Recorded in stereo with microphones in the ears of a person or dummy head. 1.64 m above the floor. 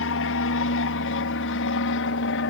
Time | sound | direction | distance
0.0 | an aircraft | 65° left (ahead or behind) | ?